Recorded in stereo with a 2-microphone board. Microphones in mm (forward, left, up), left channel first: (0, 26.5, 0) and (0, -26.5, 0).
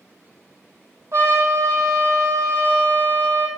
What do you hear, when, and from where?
1.1 s a trumpet: 75° right (ahead or behind), 1.8 m